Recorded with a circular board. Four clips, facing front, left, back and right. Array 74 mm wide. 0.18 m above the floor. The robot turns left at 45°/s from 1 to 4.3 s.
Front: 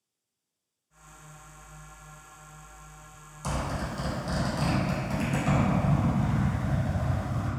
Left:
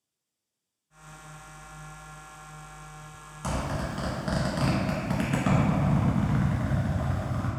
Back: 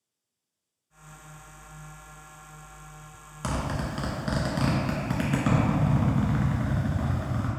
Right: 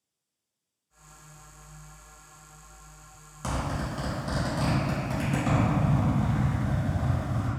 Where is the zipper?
175° right, 0.6 m; by 7.5 s 145° left, 0.6 m.